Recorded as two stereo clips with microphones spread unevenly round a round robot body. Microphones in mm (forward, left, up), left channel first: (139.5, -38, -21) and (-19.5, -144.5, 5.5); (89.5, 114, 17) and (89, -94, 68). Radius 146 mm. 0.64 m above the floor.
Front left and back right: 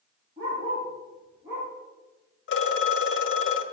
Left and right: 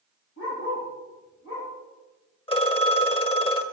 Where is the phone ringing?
25° left, 1.7 m.